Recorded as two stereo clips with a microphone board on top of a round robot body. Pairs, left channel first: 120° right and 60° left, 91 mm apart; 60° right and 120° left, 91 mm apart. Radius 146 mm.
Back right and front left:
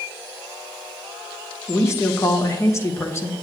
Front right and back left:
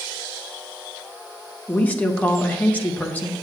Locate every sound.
1.7 s a woman speaking: 115° right, 1.2 m